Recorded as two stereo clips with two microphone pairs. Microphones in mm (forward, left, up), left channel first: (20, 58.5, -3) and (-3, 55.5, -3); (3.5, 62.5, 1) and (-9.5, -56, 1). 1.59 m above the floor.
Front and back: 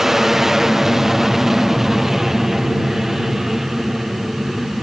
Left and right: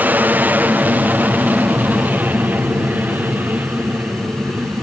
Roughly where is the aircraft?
Behind right.